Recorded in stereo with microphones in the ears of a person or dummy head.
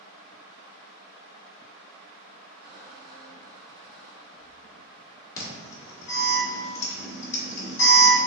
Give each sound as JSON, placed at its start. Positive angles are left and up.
{"t": 2.6, "sound": "a squeak", "side_deg": -65, "distance_m": 1.9}
{"t": 5.4, "sound": "an alarm", "side_deg": 20, "distance_m": 1.6}